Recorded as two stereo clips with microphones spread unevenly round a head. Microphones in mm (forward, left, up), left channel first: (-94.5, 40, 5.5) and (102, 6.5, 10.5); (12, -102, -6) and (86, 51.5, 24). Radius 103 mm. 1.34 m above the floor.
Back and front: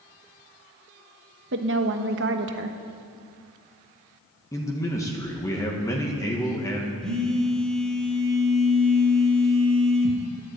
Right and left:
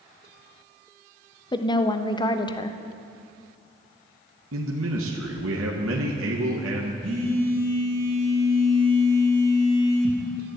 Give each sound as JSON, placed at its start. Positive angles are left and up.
{"t": 1.5, "sound": "a woman speaking", "azimuth_deg": -50, "distance_m": 1.2}
{"t": 4.5, "sound": "a man speaking", "azimuth_deg": 95, "distance_m": 1.6}
{"t": 7.0, "sound": "a phone buzzing", "azimuth_deg": 85, "distance_m": 3.0}